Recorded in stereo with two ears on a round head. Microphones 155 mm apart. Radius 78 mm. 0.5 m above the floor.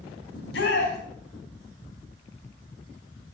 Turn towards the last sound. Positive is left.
turn(degrees=70)  # may be behind; listen again after turning